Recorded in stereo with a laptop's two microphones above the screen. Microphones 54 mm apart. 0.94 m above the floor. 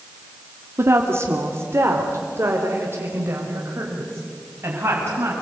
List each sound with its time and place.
0.8 s a woman speaking: 50° right (ahead or behind), 2 m; by 5.3 s 45° right (ahead or behind), 7.5 m